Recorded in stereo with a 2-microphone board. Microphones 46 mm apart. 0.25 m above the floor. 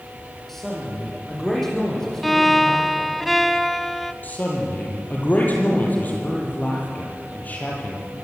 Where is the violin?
5° left (ahead or behind), 0.6 m.